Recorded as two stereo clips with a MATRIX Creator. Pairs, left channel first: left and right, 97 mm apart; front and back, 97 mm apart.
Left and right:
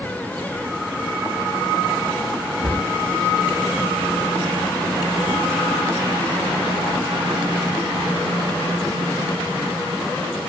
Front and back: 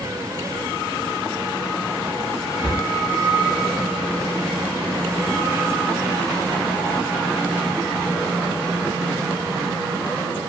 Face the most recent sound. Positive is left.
turn(degrees=-85)